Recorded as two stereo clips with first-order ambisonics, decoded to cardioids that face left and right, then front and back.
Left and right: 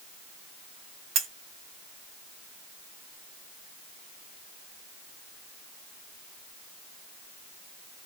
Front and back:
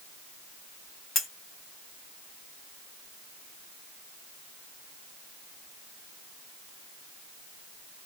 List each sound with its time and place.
1.1 s cutlery clinking: 60° right, 1.6 m